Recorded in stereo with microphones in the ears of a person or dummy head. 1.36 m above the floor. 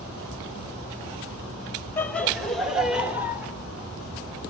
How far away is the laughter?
About 1.8 m.